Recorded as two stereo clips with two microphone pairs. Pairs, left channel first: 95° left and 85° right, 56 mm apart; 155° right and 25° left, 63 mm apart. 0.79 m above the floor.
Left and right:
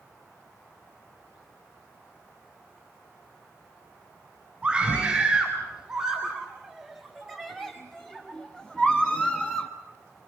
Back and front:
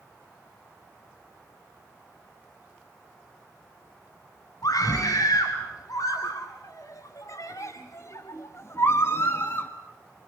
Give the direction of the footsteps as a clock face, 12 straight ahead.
I don't hear footsteps.